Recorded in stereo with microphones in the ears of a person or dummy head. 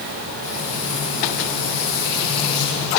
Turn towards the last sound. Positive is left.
turn(degrees=50)  # may be behind; listen again after turning